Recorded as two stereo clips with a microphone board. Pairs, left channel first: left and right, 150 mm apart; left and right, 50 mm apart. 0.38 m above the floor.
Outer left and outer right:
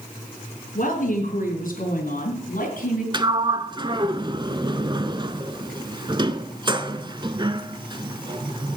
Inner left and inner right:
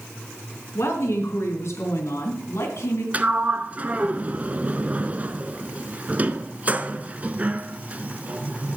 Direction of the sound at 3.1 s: 30° right (ahead or behind).